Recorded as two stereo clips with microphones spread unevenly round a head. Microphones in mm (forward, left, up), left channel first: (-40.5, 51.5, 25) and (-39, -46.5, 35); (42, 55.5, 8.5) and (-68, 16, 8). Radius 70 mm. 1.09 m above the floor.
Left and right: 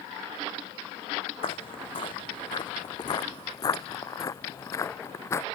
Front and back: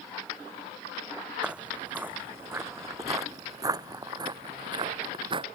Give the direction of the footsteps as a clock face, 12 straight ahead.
8 o'clock.